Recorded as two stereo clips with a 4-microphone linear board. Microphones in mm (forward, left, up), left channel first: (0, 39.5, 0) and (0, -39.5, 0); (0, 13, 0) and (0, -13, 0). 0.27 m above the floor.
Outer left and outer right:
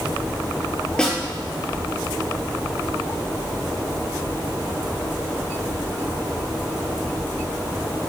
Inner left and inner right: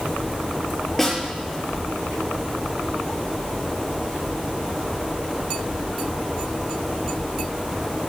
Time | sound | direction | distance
1.0 | a snare drum | 10° left (ahead or behind) | 5 m